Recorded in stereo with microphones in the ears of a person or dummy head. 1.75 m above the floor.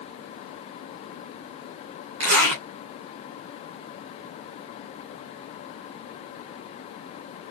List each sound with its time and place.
2.2 s a zipper: 60° right (ahead or behind), 3 m